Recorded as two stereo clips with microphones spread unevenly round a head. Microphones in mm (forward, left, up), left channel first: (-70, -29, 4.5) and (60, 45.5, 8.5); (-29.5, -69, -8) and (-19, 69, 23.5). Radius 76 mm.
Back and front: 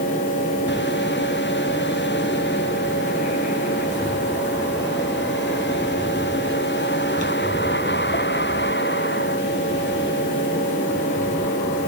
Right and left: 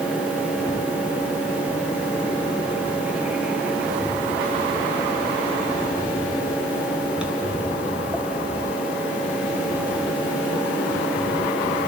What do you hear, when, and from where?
0.0 s a fan: 170° left, 1.9 m